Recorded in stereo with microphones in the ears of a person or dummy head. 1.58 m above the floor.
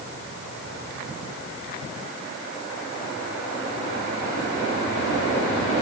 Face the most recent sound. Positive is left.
No sound to turn to.